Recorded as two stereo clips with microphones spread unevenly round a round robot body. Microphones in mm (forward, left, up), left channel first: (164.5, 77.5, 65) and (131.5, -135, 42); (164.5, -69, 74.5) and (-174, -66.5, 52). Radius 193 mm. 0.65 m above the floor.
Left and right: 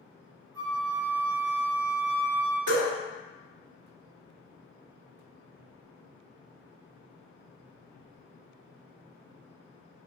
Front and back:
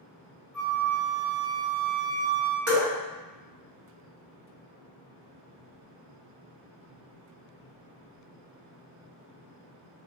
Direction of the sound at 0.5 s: 175° right.